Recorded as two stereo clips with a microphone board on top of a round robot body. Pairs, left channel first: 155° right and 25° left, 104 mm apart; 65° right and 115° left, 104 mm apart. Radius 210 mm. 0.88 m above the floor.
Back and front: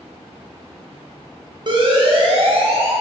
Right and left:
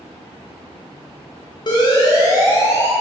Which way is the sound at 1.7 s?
20° right.